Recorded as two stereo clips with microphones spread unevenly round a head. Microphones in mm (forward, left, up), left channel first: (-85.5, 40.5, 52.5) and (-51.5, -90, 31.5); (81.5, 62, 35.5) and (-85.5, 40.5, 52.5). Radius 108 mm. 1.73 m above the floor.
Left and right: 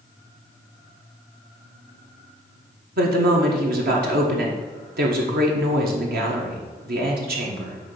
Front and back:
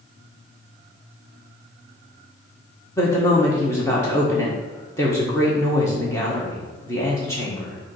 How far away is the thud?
No thud in this recording.